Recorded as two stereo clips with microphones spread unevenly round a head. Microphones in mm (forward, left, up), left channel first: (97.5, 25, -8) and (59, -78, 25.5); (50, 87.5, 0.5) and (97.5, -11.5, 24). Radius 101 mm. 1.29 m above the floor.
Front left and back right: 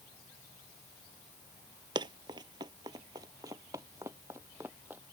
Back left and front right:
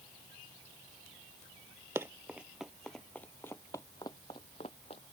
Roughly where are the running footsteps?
Behind right.